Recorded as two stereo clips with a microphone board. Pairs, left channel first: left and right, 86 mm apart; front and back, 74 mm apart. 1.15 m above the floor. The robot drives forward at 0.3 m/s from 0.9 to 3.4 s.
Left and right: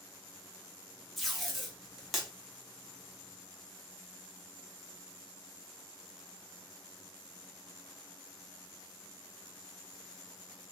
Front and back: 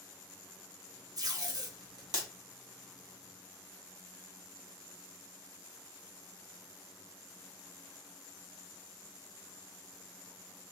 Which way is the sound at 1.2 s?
Straight behind.